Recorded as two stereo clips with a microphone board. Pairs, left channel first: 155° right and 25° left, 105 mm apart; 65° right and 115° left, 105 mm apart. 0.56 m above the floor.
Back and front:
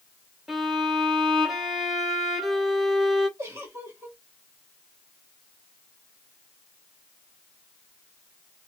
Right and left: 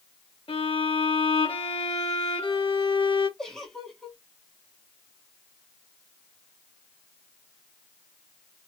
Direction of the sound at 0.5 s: 70° right.